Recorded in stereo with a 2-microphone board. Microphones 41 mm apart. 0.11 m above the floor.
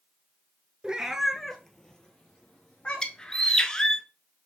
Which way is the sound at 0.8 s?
25° right (ahead or behind).